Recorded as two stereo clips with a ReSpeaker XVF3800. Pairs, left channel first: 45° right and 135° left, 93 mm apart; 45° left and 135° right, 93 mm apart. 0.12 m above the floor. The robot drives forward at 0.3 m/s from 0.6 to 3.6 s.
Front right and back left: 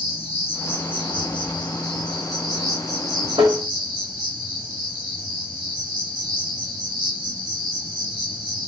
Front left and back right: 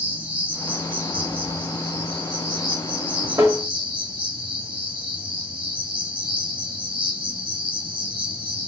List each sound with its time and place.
0.0 s an insect: 110° right, 1.0 m; by 8.7 s 140° right, 1.6 m
3.4 s tapping: 170° left, 1.1 m